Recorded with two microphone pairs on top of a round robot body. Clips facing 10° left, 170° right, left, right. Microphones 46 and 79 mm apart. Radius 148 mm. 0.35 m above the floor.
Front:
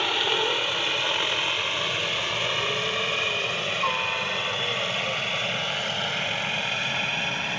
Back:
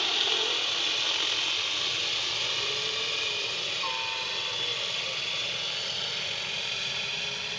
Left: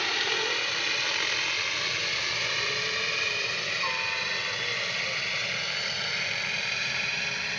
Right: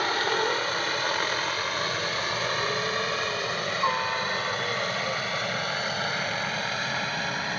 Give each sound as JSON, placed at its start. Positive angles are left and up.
{"t": 0.0, "sound": "a helicopter", "azimuth_deg": -35}